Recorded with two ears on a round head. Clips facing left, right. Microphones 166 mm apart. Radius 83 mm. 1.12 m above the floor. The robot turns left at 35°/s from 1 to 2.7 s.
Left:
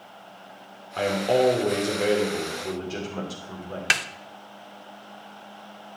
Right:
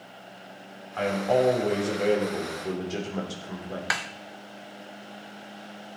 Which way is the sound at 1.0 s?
50° left.